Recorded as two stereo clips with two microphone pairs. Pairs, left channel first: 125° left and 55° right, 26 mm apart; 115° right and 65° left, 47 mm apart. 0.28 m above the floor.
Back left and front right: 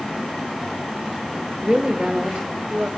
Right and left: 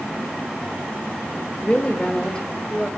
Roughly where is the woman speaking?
Right.